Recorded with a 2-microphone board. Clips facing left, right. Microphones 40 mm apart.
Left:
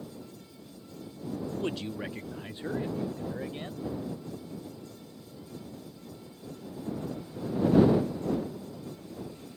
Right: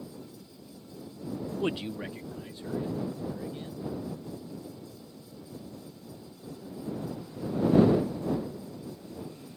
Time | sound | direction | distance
1.6 | a man speaking | 30° right (ahead or behind) | ?